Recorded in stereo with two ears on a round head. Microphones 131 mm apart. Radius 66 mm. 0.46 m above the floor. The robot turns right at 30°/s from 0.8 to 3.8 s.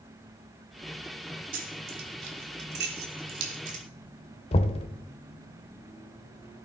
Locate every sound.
1.5 s keys jangling: 60° right (ahead or behind), 2.0 m; by 3.8 s 50° right (ahead or behind), 2.0 m
4.5 s knocking: 40° left (ahead or behind), 1.0 m